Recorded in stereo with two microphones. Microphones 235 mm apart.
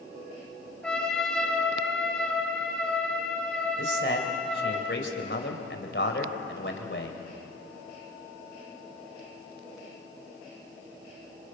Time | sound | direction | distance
0.8 | a trumpet | 5° left (ahead or behind) | 3.5 m
3.8 | a man speaking | 55° left (ahead or behind) | 3 m